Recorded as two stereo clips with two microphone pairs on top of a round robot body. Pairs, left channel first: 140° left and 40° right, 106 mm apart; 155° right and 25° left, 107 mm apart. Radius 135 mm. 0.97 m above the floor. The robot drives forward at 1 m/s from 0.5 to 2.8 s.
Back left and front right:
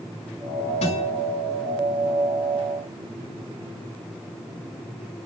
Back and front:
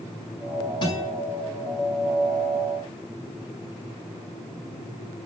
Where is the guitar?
160° left, 5 m.